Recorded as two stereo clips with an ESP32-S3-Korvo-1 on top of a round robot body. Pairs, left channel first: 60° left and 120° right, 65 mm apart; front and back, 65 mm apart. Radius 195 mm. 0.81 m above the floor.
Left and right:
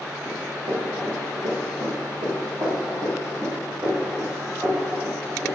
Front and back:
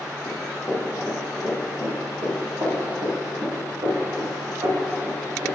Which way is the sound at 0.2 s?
70° right.